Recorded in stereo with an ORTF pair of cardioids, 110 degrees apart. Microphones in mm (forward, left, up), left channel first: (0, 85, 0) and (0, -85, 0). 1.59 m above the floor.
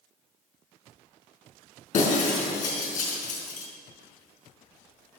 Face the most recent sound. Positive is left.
turn(degrees=55)